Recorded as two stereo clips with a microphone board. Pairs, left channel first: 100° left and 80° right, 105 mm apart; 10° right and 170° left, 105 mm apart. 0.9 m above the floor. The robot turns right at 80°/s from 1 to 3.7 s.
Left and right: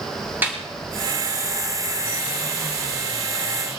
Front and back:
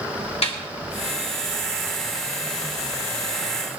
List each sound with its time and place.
0.4 s a snare drum: 10° right, 3 m